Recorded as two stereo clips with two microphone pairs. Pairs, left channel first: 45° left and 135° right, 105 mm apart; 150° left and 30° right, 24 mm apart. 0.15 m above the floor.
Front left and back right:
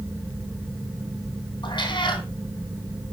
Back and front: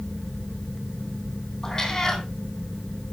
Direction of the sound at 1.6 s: 90° left.